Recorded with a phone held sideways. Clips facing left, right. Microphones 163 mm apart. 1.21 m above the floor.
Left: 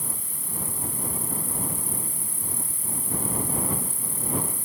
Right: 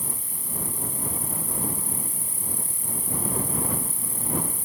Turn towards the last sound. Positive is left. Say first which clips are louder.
# right 1 dB
turn(degrees=-20)  # may be behind; listen again after turning